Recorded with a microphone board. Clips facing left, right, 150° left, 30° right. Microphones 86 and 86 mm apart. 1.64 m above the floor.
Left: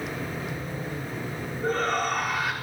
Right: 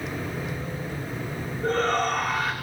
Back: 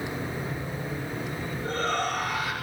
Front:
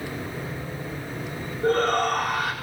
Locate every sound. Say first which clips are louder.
1.6 s a shout: right 2 dB, front 8 dB; 5° left, 5.5 m